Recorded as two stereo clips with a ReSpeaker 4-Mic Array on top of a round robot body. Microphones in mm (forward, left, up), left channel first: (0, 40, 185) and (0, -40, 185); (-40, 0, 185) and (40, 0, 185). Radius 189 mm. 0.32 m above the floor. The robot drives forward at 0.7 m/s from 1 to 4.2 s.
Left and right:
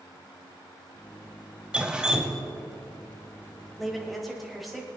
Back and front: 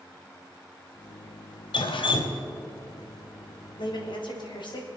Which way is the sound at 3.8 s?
Straight behind.